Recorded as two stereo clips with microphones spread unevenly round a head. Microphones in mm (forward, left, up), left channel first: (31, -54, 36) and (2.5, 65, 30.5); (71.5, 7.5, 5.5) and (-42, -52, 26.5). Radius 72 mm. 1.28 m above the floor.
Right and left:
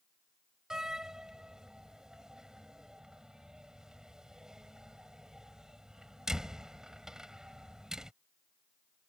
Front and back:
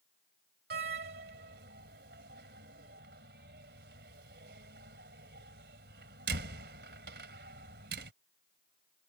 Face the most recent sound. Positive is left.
turn(degrees=-170)